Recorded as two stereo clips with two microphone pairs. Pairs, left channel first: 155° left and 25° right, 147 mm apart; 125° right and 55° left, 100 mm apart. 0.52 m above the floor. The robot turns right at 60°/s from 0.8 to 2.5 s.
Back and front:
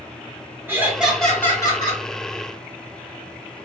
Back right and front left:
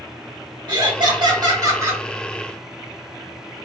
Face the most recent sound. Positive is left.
turn(degrees=145)